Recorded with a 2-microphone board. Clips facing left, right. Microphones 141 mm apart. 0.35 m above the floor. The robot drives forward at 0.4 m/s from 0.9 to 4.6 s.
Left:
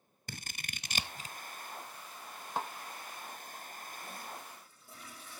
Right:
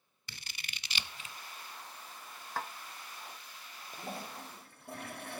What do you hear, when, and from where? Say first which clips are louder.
0.3 s scissors: left 4 dB; 45° left (ahead or behind), 0.5 m; by 1.4 s 35° left (ahead or behind), 0.7 m
2.6 s a snare drum: left 2 dB; 20° left (ahead or behind), 0.7 m; by 2.7 s 25° left (ahead or behind), 0.7 m
3.9 s a toilet flushing: right 6 dB; 60° right (ahead or behind), 0.7 m; by 5.4 s 65° right (ahead or behind), 0.6 m